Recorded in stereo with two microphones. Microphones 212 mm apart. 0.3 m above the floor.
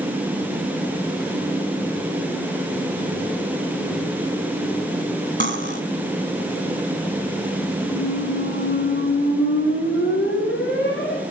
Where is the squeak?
55° left (ahead or behind), 4 m.